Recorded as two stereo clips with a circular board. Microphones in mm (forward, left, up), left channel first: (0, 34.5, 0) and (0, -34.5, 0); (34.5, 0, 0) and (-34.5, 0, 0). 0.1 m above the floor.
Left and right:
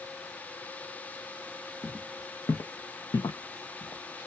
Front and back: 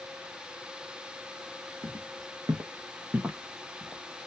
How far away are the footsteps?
About 1.0 m.